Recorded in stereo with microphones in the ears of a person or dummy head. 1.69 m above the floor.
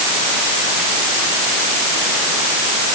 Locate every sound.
Only background noise.